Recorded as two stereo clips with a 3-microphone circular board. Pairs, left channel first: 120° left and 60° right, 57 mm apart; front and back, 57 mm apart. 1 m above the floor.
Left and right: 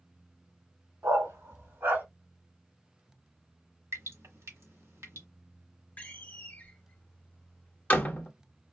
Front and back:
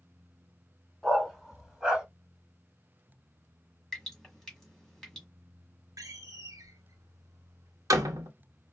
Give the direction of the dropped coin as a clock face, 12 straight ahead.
I don't hear a dropped coin.